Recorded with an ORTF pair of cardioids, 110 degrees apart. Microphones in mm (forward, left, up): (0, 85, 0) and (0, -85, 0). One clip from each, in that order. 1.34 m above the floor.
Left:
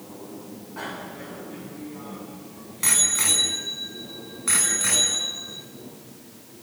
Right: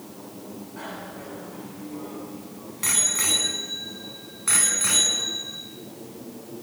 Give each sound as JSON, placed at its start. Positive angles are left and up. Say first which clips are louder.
{"t": 0.8, "sound": "a bicycle bell", "louder": "left 3 dB", "azimuth_deg": 30, "distance_m": 8.5}